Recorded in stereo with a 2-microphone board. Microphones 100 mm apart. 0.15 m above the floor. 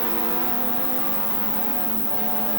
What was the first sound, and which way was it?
An insect, 45° left (ahead or behind).